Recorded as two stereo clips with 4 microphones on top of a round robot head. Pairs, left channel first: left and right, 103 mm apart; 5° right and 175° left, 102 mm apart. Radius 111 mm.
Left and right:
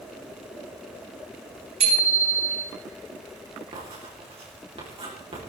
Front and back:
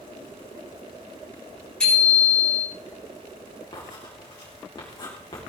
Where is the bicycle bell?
85° right, 8 m.